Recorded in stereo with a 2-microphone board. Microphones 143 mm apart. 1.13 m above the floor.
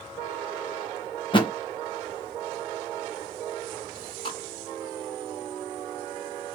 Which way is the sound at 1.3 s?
35° left (ahead or behind).